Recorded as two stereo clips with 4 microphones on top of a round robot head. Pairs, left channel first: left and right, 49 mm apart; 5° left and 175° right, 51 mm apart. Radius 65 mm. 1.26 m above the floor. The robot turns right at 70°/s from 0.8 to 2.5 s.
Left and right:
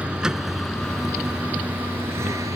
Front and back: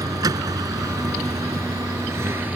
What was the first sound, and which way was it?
A vehicle, 165° right.